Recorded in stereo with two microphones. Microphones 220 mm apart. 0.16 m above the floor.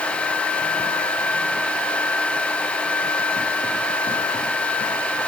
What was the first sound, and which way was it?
Only background noise.